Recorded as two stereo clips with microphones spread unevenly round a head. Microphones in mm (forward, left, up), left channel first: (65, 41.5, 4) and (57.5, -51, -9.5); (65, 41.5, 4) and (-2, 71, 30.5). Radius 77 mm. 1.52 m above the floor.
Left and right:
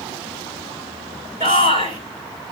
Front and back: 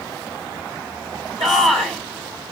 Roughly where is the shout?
Behind right.